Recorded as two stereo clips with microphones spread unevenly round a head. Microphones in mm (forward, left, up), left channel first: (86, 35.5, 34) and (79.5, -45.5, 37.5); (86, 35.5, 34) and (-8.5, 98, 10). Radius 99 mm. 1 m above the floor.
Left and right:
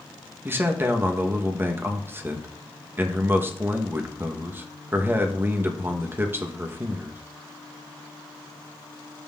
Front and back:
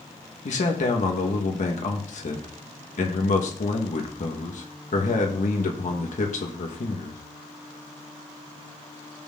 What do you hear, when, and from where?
0.5 s a man speaking: 30° right, 1.2 m